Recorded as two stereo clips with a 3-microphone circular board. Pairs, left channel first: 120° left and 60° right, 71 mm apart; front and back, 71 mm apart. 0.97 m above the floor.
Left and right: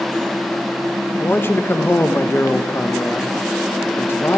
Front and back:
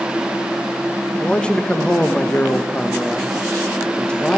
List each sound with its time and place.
1.2 s a man speaking: 70° left, 0.8 m